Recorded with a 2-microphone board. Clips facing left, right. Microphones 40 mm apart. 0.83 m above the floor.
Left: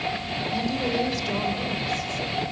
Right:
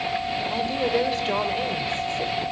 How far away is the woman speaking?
About 3 m.